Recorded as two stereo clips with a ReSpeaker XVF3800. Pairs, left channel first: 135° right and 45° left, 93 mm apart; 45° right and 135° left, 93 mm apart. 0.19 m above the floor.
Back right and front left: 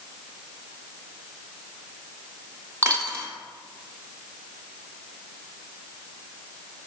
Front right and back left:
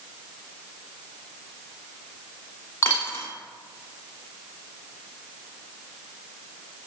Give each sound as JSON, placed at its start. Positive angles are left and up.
{"t": 2.8, "sound": "a dropped coin", "azimuth_deg": 5, "distance_m": 0.8}